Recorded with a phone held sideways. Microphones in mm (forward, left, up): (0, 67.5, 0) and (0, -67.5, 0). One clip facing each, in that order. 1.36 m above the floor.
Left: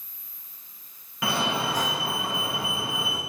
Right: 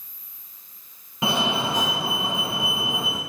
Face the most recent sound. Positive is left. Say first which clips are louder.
# right 3 dB
turn(degrees=-25)  # may be behind; listen again after turning